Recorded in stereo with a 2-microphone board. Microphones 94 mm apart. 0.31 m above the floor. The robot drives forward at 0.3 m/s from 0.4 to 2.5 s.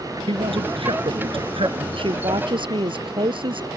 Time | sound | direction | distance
0.3 | a man speaking | 75° right (ahead or behind) | ?
2.0 | a woman speaking | 70° right (ahead or behind) | ?